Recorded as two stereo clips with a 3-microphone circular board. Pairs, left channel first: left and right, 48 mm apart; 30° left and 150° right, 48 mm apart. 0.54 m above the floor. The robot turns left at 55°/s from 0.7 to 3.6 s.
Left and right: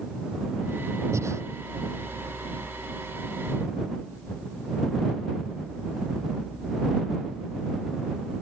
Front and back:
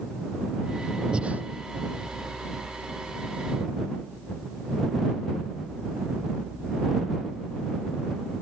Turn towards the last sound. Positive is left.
turn(degrees=145)